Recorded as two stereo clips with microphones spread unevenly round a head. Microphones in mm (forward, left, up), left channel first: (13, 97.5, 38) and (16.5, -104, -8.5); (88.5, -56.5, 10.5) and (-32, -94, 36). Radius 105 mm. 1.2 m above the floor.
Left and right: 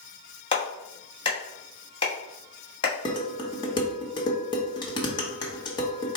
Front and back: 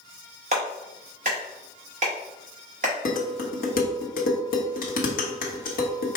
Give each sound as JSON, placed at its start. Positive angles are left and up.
{"t": 0.5, "sound": "a clap", "azimuth_deg": 150, "distance_m": 1.0}
{"t": 3.0, "sound": "dishes clattering", "azimuth_deg": 25, "distance_m": 1.0}